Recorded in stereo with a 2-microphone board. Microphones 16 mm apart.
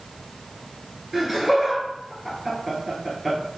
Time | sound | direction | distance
1.1 | laughter | 5° right (ahead or behind) | 2.0 m